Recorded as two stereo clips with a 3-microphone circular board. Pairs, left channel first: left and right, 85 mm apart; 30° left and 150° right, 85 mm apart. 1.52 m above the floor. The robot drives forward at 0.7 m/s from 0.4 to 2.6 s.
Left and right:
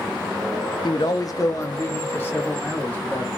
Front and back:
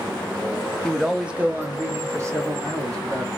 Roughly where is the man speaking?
Left.